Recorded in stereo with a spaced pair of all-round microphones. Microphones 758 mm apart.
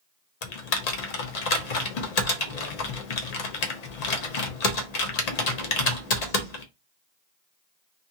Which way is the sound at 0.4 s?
60° left (ahead or behind).